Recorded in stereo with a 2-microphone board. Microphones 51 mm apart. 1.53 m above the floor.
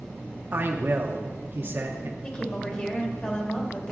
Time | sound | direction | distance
0.5 | a man speaking | 45° right (ahead or behind) | 1.0 m
2.2 | a woman speaking | 25° left (ahead or behind) | 2.5 m